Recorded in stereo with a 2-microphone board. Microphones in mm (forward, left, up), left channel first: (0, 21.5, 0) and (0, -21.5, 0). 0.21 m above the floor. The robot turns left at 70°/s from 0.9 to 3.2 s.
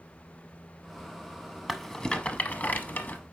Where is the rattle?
Centre (ahead or behind), 0.7 m; by 3.2 s 45° left (ahead or behind), 0.7 m.